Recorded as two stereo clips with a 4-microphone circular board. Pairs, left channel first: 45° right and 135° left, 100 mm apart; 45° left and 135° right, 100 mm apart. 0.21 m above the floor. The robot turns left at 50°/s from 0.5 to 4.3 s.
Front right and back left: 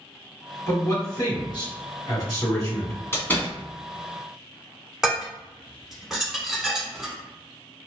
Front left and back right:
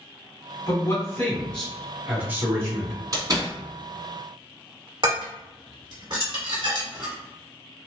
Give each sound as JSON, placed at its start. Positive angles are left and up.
{"t": 0.7, "sound": "a man speaking", "azimuth_deg": 10, "distance_m": 1.8}
{"t": 3.1, "sound": "a door slam", "azimuth_deg": -100, "distance_m": 1.3}
{"t": 5.0, "sound": "dishes clattering", "azimuth_deg": -140, "distance_m": 1.5}